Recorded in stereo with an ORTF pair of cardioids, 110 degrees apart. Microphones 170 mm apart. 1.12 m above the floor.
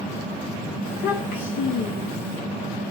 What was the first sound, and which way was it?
A child speaking, 65° left.